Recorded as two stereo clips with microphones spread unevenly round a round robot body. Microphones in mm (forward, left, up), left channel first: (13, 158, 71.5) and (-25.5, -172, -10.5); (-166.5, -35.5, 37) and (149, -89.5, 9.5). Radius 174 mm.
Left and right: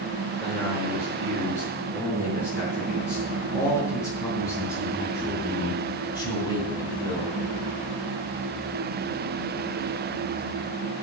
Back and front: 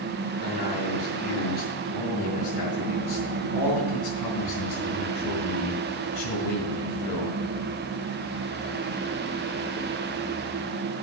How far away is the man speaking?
About 6 m.